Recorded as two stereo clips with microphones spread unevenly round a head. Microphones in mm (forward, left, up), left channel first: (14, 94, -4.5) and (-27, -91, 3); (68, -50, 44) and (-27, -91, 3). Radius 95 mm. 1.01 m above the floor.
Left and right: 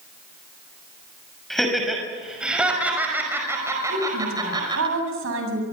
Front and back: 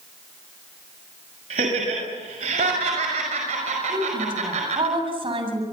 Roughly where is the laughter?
Behind.